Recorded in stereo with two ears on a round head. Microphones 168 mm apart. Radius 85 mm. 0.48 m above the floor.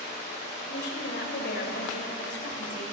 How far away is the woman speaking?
About 1.8 m.